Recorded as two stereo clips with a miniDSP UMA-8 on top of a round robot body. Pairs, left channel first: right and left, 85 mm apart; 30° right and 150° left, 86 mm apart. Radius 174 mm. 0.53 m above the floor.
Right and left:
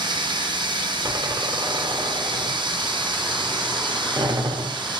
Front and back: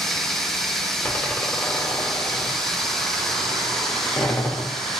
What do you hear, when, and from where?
0.0 s running water: 55° left, 1.9 m
1.0 s a door slam: 35° left, 2.5 m